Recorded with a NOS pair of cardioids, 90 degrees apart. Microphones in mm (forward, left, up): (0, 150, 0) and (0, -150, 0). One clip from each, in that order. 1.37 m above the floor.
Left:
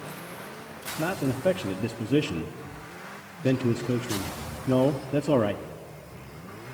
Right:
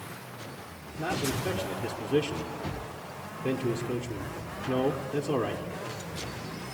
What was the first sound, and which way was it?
A man speaking, 35° left.